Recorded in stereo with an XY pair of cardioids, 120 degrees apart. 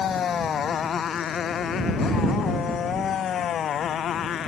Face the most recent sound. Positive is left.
turn(degrees=50)